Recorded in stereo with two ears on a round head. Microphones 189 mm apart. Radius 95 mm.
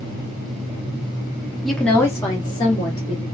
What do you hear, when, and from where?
1.6 s a woman speaking: centre (ahead or behind), 0.8 m; by 3.2 s 30° left (ahead or behind), 1.2 m